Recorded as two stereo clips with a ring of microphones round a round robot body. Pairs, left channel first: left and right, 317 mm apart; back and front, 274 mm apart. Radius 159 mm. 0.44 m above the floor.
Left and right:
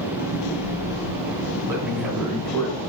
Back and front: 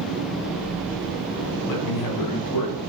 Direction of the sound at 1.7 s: 170° right.